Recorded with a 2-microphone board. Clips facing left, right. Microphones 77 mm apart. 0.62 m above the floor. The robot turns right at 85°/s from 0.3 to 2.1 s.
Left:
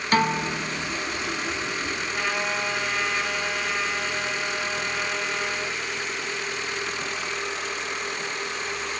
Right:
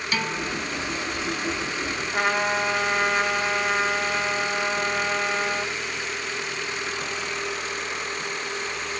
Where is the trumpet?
50° right (ahead or behind), 1.7 m.